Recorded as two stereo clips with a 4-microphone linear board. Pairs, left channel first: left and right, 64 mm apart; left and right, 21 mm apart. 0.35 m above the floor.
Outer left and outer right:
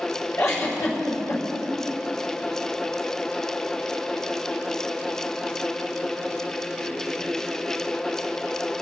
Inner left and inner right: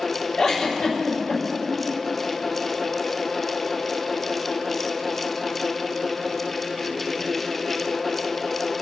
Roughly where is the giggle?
Left.